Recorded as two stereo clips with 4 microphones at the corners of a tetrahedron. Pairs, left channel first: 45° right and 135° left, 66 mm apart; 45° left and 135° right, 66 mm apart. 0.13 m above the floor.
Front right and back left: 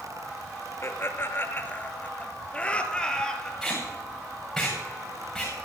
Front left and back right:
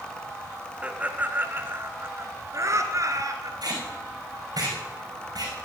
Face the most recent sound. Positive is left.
turn(degrees=-130)